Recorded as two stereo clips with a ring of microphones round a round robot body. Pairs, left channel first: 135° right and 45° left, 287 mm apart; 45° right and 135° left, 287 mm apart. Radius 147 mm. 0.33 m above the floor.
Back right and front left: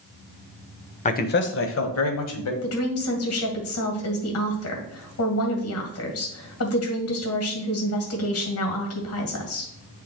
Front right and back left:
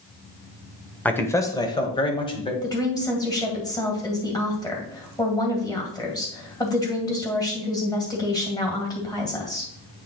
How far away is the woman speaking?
About 2 m.